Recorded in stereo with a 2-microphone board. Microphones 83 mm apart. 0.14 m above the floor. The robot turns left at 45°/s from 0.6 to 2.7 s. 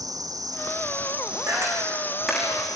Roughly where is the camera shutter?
Right.